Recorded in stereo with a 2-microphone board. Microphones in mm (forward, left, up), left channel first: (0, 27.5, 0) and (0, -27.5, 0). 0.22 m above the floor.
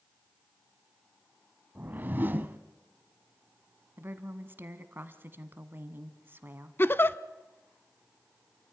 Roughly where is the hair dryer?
No hair dryer in this recording.